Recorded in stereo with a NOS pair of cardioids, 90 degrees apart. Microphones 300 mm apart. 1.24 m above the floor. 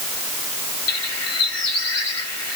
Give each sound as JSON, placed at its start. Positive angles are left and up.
{"t": 0.9, "sound": "a bird", "azimuth_deg": 60, "distance_m": 2.0}